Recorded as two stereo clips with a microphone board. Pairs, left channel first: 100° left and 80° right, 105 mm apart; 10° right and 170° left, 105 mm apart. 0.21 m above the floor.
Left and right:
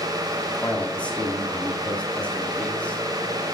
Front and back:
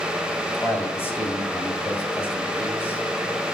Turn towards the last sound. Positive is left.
turn(degrees=35)